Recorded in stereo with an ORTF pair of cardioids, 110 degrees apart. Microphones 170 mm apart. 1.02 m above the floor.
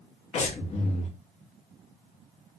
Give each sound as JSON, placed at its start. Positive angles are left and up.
{"t": 0.3, "sound": "breathing", "azimuth_deg": 40, "distance_m": 0.9}